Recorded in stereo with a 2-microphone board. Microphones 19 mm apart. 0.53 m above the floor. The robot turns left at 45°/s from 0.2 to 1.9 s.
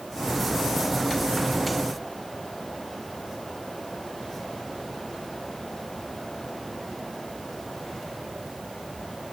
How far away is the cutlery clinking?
I don't hear cutlery clinking.